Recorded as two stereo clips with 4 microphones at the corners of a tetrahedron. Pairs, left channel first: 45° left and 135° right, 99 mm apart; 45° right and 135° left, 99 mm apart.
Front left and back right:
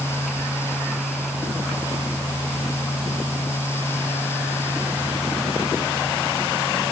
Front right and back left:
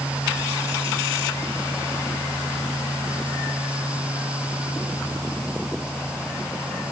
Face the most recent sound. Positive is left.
No sound to turn to.